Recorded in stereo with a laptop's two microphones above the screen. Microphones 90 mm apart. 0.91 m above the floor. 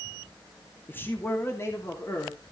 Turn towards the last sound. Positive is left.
turn(degrees=35)  # may be behind; listen again after turning